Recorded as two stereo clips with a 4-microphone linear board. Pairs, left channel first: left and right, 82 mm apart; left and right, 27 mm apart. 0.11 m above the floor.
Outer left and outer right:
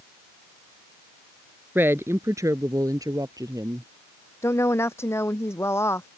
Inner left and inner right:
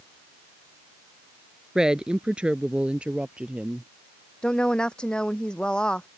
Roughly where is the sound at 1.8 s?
Right.